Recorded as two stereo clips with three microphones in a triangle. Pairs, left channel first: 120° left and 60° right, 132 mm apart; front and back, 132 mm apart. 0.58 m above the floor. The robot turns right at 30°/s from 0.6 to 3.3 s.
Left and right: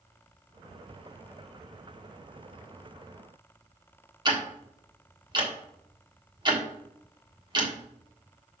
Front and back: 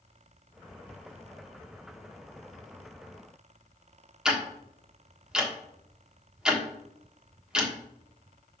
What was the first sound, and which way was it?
Ticking, 100° right.